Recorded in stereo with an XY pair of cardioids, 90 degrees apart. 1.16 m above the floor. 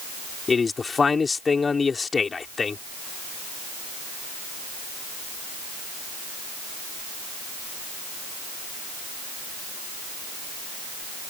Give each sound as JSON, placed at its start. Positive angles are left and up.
{"t": 0.5, "sound": "a man speaking", "azimuth_deg": 40}